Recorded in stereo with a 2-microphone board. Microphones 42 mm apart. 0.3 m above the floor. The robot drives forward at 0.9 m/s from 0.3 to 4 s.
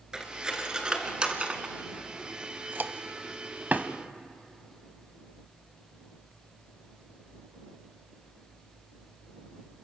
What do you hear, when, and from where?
0.1 s cutlery clinking: 15° right (ahead or behind), 2.5 m; by 3.9 s 40° right (ahead or behind), 1.2 m